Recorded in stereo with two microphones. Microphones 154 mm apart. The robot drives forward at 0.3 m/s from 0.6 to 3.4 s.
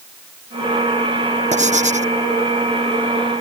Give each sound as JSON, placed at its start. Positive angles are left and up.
{"t": 1.5, "sound": "writing", "side_deg": -50}